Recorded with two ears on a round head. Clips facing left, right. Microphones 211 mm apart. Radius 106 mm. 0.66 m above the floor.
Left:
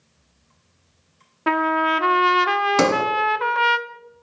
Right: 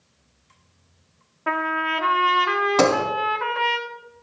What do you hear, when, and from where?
1.5 s a trumpet: 50° left (ahead or behind), 0.7 m
2.8 s a sliding door: 30° left (ahead or behind), 1.3 m